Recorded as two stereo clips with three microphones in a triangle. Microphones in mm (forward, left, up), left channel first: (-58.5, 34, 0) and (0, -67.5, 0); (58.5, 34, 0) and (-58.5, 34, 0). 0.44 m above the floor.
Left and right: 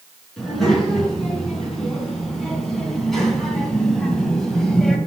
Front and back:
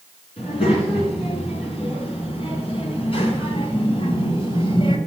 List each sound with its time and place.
0.4 s a child speaking: 30° left, 4.5 m; by 5.0 s 35° left, 1.9 m